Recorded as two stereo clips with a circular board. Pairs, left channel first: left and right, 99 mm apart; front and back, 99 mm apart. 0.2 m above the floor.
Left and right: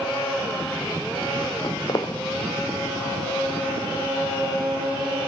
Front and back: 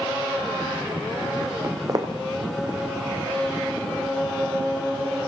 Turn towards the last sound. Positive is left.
turn(degrees=135)